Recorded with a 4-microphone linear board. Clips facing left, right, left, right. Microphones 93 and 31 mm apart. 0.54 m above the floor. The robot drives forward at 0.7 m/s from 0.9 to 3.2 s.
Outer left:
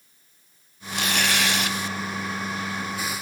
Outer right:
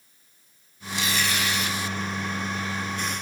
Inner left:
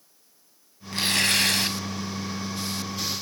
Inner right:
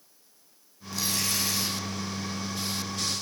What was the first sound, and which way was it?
Tearing paper, 50° left (ahead or behind).